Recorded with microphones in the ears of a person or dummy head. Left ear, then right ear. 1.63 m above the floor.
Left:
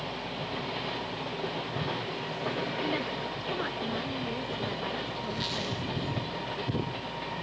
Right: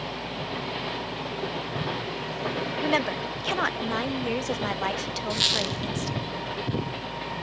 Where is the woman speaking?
35° right (ahead or behind), 0.9 m.